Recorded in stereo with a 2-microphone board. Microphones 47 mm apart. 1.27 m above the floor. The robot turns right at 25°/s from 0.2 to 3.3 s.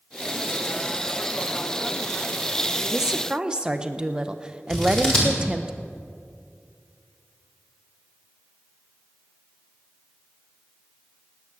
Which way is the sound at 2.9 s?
10° right (ahead or behind).